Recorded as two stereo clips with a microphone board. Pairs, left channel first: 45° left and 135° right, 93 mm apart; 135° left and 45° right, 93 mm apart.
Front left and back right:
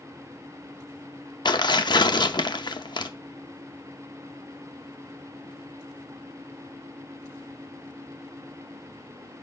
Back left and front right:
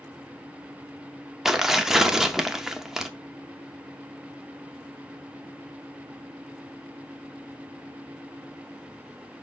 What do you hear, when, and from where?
1.4 s tearing paper: 40° left, 0.6 m